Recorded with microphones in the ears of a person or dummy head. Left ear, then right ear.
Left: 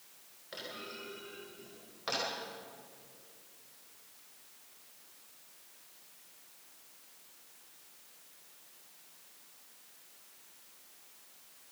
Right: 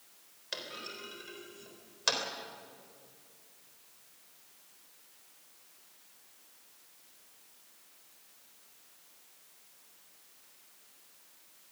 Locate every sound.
0.5 s a clunk: 85° right, 3.5 m